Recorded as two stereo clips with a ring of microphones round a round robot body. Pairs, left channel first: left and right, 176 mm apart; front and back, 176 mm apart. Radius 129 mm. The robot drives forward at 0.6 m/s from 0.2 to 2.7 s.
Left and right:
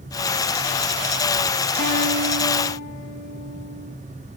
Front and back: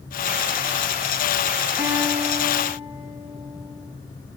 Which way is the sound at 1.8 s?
105° right.